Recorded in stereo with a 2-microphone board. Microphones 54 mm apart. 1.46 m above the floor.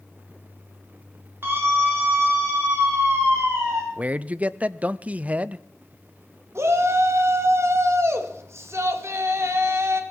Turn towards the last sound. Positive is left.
turn(degrees=-55)  # may be behind; listen again after turning